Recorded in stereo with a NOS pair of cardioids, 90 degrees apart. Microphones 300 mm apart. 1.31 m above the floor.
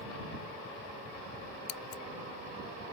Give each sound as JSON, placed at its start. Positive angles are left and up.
{"t": 1.7, "sound": "scissors", "azimuth_deg": 60}